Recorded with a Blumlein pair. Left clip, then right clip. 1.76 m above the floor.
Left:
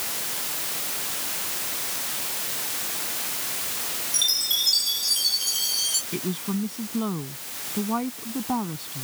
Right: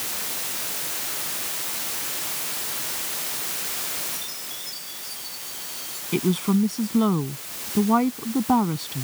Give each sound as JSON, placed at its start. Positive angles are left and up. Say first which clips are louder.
{"t": 4.1, "sound": "a chime", "louder": "left 12 dB", "azimuth_deg": 55}
{"t": 6.1, "sound": "a woman speaking", "louder": "right 6 dB", "azimuth_deg": -70}